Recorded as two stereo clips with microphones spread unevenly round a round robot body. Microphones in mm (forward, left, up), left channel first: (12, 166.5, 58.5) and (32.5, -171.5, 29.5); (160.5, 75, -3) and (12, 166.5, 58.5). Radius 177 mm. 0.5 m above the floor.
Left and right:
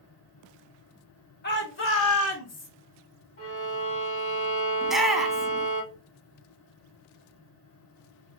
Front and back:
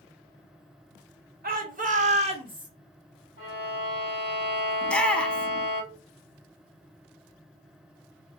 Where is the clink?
I don't hear a clink.